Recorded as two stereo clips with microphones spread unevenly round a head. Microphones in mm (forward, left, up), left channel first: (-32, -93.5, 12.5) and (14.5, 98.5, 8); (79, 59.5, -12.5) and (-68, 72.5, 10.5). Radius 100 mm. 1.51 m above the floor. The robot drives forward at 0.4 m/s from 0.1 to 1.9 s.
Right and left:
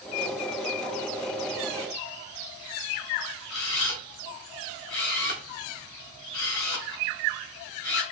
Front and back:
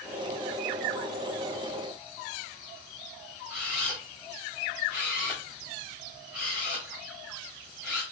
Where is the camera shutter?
110° right, 1.0 m.